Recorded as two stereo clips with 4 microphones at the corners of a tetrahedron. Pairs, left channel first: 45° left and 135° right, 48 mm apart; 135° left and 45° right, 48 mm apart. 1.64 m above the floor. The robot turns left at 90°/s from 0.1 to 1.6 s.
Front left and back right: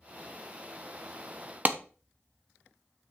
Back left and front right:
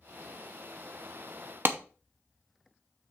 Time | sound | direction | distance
1.6 | a clap | 85° right | 0.8 m